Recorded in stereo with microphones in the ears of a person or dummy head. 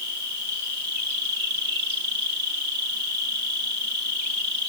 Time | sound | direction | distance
0.0 | an insect | 65° right (ahead or behind) | 8 m